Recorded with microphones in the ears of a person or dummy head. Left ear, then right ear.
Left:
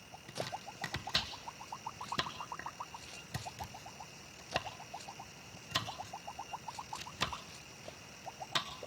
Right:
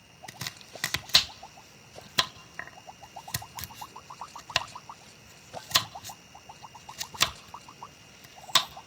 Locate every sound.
0.3 s chopping: 40° right (ahead or behind), 1.4 m